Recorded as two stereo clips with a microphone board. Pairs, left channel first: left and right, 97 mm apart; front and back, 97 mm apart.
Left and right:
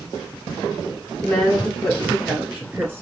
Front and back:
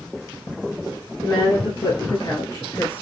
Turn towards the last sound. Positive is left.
turn(degrees=-55)